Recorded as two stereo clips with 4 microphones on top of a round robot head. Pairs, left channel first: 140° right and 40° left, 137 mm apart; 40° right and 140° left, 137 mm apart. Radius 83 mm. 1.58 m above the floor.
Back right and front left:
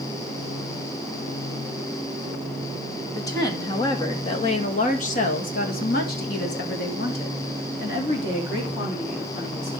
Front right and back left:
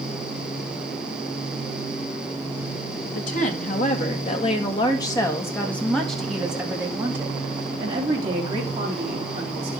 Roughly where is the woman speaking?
Right.